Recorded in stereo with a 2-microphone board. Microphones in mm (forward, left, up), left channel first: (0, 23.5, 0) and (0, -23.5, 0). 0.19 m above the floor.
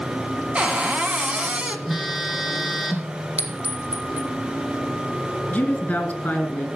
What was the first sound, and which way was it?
A cupboard door, 25° right (ahead or behind).